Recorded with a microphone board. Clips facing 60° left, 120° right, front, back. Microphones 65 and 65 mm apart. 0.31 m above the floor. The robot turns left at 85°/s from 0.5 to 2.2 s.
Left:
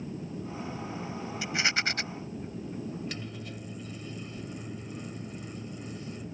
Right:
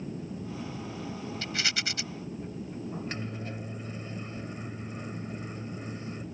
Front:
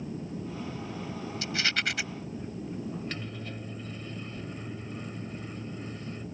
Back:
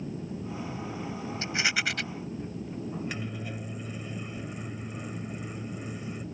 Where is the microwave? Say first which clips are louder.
Right 2 dB, back 2 dB; 115° right.